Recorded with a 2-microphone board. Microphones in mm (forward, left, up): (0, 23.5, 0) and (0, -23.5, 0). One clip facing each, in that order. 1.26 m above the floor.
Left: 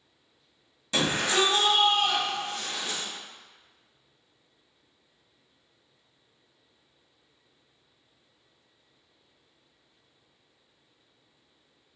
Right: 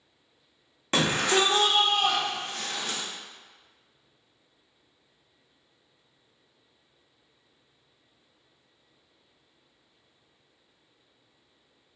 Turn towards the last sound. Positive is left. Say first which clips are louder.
# right 2 dB
turn(degrees=-45)  # may be behind; listen again after turning